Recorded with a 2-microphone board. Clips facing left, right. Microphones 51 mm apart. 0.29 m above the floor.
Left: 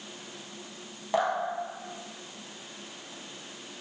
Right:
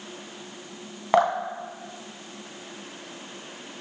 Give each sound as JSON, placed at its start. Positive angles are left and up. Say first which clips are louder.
{"t": 1.1, "sound": "dripping", "louder": "right 6 dB", "side_deg": -80, "distance_m": 0.5}